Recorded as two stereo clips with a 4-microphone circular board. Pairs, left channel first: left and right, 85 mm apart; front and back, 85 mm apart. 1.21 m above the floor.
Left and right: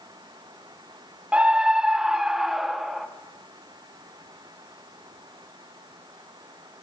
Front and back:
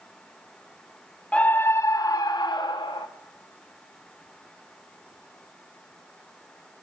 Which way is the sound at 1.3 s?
45° right.